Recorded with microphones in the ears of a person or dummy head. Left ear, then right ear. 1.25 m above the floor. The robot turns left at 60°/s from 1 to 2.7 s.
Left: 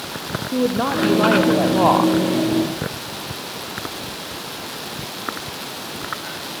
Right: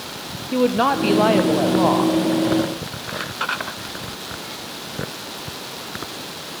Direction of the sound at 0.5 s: 135° right.